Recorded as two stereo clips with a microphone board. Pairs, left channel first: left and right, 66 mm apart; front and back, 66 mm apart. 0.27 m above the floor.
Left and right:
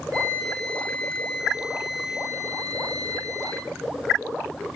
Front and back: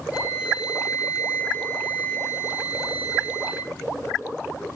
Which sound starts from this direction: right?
A flute, at 0.1 s.